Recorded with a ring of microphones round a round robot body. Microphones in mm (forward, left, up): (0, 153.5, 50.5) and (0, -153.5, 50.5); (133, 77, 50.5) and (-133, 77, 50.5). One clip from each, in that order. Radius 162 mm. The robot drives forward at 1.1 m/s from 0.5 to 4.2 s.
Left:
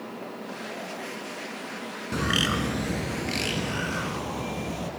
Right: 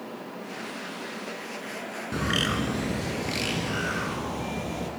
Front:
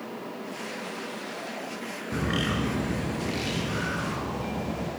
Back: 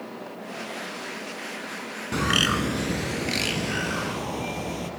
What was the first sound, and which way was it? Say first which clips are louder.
A bird: left 2 dB, back 7 dB; 170° left.